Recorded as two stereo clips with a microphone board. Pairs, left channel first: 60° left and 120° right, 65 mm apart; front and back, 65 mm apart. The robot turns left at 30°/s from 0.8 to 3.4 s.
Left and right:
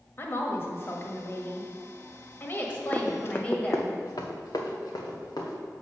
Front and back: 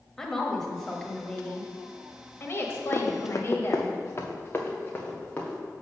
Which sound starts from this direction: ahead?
Running footsteps, at 2.9 s.